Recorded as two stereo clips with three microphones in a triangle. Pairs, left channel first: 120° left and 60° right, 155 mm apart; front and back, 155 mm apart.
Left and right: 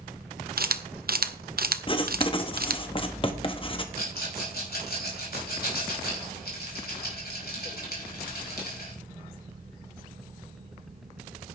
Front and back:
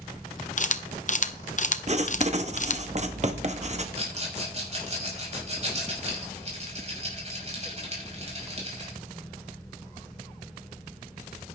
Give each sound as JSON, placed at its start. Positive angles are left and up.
{"t": 0.6, "sound": "a camera shutter", "azimuth_deg": -40, "distance_m": 1.0}
{"t": 1.9, "sound": "writing", "azimuth_deg": 160, "distance_m": 1.3}
{"t": 4.0, "sound": "a rattle", "azimuth_deg": 135, "distance_m": 6.0}